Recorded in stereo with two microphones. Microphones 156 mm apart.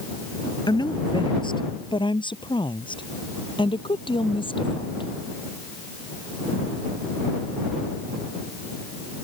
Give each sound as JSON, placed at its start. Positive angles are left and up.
{"t": 0.7, "sound": "a woman speaking", "side_deg": 30}